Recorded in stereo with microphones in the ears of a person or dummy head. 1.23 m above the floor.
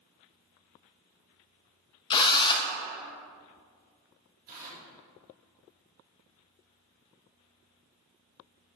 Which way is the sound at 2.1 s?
30° left (ahead or behind).